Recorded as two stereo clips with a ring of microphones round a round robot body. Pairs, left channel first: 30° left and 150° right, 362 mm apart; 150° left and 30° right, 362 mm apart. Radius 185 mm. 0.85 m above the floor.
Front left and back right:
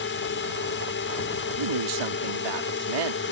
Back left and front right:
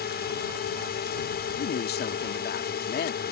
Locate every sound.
0.0 s a drone: 90° left
1.6 s a woman speaking: 145° right